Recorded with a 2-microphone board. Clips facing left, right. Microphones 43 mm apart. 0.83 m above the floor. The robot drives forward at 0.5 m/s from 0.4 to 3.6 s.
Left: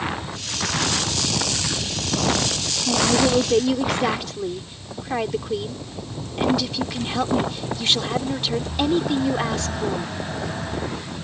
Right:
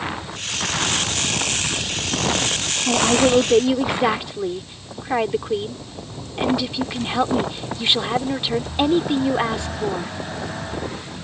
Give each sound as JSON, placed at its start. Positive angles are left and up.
{"t": 2.9, "sound": "a woman speaking", "side_deg": -25}